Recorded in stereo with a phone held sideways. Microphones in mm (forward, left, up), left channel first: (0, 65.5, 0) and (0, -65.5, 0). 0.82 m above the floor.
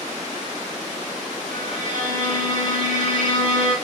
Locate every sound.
1.5 s a violin: 70° right (ahead or behind), 2 m